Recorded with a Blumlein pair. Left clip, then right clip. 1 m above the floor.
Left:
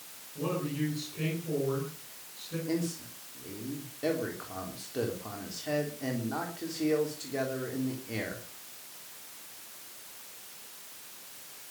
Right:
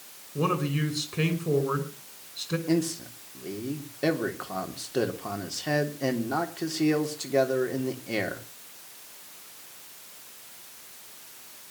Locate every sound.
0.3 s a man speaking: 55° right, 5.5 m
2.7 s a man speaking: 70° right, 3.5 m